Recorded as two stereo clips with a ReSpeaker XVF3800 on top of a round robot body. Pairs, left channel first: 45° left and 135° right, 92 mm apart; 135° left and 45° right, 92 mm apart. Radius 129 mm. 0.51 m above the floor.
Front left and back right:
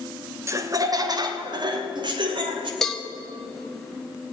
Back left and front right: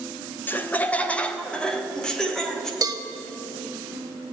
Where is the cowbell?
40° right, 1.3 m.